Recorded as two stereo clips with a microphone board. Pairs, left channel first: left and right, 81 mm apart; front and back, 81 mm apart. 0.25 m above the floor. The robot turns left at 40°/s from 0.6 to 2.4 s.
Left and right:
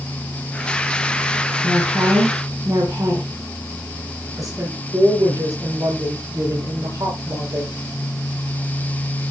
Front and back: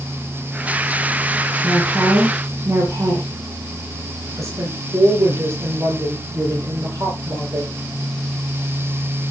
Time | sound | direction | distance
1.6 | a woman speaking | 95° right | 2.5 m
4.4 | a woman speaking | 130° right | 8.5 m